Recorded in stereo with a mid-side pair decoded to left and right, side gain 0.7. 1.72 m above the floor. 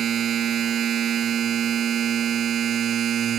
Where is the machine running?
40° right.